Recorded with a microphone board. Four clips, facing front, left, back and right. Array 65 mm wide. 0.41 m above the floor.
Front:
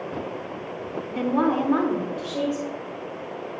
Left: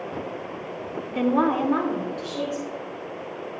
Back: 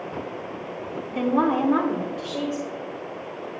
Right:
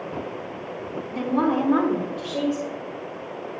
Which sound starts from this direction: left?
A woman speaking, at 1.1 s.